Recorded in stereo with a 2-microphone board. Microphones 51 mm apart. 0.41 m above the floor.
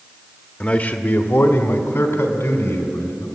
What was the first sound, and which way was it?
A man speaking, 25° left (ahead or behind).